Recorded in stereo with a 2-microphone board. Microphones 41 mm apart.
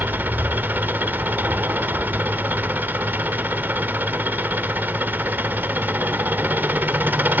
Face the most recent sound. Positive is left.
turn(degrees=-50)  # may be behind; listen again after turning